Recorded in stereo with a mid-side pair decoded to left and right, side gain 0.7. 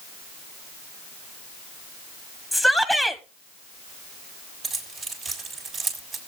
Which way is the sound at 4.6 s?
40° right.